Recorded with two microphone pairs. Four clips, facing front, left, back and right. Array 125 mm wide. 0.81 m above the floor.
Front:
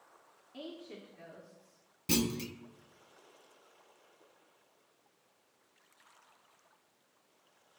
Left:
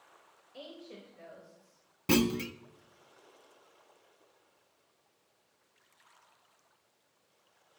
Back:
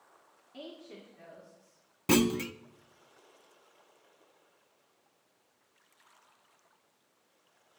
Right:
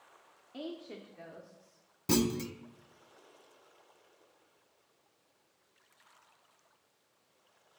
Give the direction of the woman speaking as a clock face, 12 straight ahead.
3 o'clock.